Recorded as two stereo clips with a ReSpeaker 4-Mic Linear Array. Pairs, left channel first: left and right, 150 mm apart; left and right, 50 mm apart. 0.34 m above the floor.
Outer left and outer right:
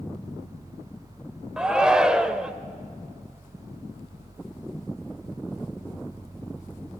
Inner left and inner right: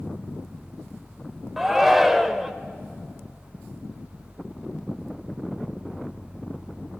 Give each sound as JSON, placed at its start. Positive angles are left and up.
{"t": 1.6, "sound": "a shout", "side_deg": -5, "distance_m": 0.9}